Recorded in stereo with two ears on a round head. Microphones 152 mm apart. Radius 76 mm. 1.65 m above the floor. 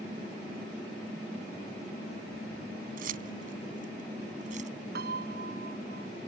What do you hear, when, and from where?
3.0 s keys jangling: 60° right (ahead or behind); by 4.7 s 50° right (ahead or behind)
5.0 s a piano: 65° right (ahead or behind)